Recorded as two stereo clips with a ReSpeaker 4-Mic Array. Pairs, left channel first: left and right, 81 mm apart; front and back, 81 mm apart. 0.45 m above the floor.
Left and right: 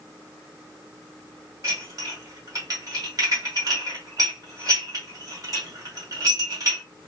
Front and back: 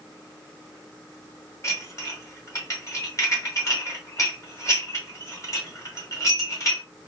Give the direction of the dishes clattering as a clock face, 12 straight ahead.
2 o'clock.